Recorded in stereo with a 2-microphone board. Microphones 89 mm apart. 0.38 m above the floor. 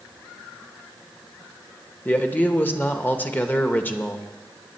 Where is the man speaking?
20° left (ahead or behind), 0.9 m.